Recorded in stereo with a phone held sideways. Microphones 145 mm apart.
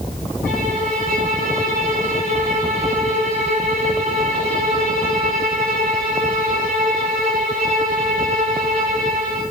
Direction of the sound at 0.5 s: 90° right.